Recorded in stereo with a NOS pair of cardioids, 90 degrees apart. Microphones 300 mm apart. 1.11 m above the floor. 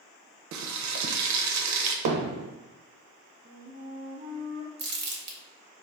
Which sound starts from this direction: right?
Frying, at 0.5 s.